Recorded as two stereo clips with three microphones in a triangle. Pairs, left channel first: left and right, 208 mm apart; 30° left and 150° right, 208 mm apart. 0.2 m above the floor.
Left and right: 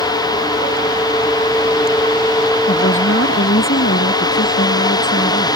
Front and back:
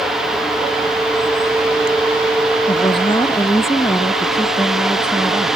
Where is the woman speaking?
90° left; by 5.5 s 130° left.